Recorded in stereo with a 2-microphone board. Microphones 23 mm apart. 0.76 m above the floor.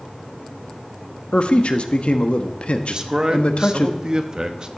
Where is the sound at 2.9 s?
35° right (ahead or behind), 0.9 m.